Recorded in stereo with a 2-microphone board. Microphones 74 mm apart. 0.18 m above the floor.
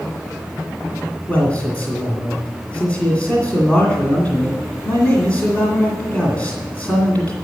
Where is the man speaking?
20° left (ahead or behind), 2 m.